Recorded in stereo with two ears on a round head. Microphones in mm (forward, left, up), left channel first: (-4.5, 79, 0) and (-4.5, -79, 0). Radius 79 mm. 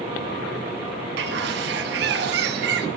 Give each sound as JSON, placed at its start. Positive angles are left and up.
{"t": 1.2, "sound": "a bird", "side_deg": -65, "distance_m": 1.3}